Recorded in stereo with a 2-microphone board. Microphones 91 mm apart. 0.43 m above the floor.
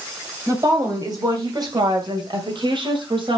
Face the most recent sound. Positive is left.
turn(degrees=-60)  # may be behind; listen again after turning